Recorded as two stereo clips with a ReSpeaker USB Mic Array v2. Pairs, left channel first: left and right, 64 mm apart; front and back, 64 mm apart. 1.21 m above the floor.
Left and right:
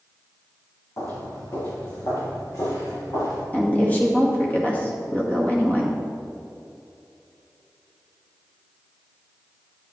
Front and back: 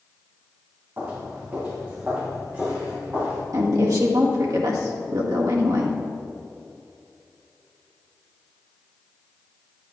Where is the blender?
No blender in this recording.